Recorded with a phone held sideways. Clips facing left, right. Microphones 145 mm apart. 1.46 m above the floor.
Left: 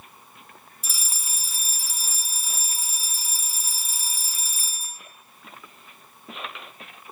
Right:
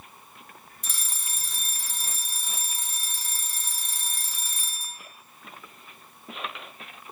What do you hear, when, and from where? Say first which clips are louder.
0.8 s a fire alarm: left 1 dB; 5° left (ahead or behind), 1.5 m